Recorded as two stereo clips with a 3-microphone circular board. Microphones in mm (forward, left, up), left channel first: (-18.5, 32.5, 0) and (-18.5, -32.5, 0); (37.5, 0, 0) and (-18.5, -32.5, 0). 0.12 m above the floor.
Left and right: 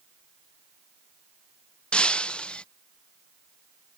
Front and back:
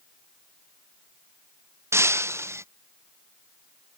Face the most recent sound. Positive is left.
turn(degrees=165)